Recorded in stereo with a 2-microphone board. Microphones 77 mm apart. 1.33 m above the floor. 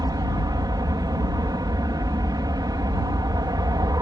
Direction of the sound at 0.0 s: 60° right (ahead or behind).